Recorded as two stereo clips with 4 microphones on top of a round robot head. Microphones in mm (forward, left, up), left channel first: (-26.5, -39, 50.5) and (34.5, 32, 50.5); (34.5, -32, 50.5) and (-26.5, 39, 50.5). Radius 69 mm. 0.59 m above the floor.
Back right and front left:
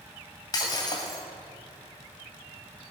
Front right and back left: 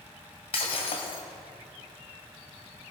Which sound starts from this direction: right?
Breaking glass, at 0.5 s.